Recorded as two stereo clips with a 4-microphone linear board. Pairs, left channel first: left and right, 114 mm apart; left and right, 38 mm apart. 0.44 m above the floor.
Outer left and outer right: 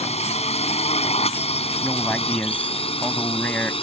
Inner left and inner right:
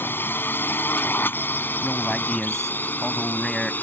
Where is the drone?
70° left (ahead or behind); by 3.8 s 55° left (ahead or behind).